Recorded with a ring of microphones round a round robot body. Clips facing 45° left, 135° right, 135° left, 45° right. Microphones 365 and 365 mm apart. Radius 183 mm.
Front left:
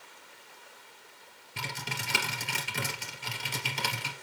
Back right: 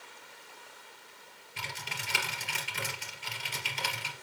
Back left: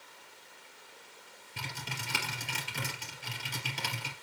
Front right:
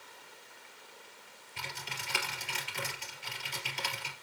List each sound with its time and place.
1.6 s typing on a keyboard: 90° left, 3 m